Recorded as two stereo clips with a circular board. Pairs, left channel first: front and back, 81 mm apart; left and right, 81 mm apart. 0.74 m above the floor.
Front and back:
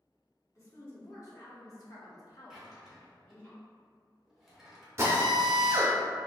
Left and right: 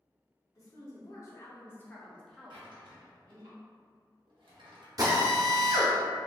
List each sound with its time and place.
0.6 s a woman speaking: 50° left, 1.3 m; by 3.5 s 65° right, 0.7 m
2.5 s a drawer: 95° right, 0.8 m
5.0 s a drill: 125° right, 0.8 m